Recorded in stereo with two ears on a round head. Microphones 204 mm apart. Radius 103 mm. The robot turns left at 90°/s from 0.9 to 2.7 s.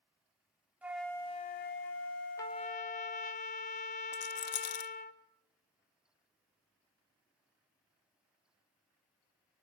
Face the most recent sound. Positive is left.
turn(degrees=70)  # may be behind; listen again after turning